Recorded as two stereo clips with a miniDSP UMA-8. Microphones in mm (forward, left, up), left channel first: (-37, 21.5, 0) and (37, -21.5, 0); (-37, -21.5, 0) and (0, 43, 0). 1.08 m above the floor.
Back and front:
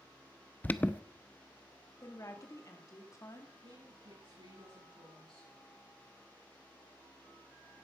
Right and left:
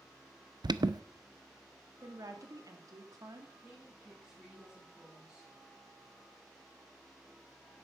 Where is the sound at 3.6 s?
20° right, 9 m.